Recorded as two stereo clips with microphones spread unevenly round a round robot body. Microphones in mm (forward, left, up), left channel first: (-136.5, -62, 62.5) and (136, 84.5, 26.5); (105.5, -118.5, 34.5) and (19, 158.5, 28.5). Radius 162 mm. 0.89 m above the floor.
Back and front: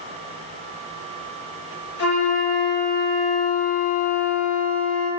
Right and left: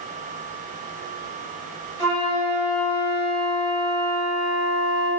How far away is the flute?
About 1.4 m.